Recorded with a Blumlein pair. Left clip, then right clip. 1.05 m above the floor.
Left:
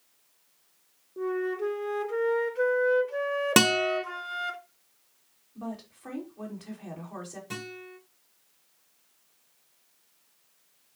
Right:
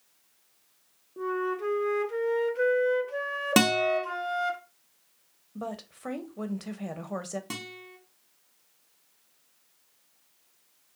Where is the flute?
Straight ahead, 0.6 m.